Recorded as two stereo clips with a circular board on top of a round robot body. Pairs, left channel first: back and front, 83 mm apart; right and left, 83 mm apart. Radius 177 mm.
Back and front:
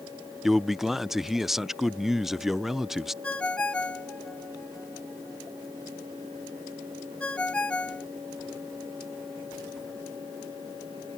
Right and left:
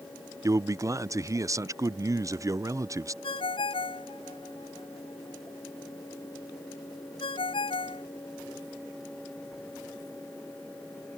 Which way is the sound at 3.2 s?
105° right.